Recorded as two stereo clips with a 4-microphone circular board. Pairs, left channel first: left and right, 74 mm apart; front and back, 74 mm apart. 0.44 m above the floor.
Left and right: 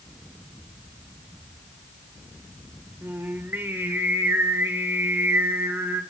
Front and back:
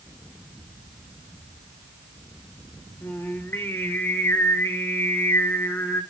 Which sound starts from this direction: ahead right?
Singing, at 3.0 s.